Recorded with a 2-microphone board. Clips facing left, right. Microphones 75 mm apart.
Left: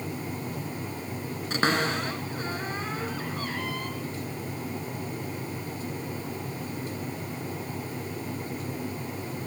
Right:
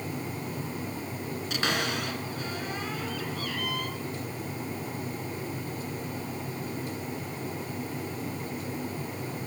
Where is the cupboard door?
40° left (ahead or behind), 2.5 m.